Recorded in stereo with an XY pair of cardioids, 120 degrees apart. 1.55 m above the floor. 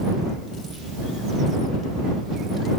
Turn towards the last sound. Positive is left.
No sound to turn to.